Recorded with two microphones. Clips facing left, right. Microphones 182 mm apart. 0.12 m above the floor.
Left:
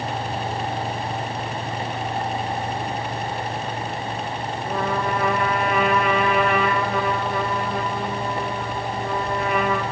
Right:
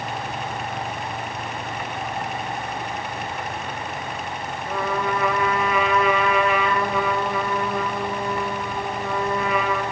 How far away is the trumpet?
About 2 m.